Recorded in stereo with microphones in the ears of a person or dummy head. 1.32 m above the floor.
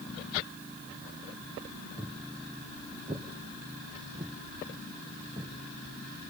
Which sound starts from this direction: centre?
Footsteps, at 2.0 s.